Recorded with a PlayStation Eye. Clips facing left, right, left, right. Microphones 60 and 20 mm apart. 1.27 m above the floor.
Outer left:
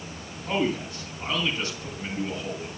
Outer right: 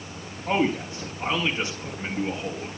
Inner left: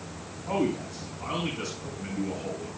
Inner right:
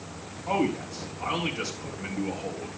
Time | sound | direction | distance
0.5 | a man speaking | 35° right (ahead or behind) | 4 m